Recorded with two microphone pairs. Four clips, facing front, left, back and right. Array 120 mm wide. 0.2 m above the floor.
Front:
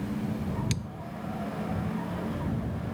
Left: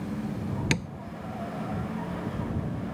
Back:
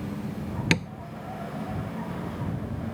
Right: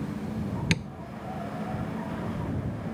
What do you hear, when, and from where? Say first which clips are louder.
0.7 s tapping: left 1 dB, back 9 dB; 165° left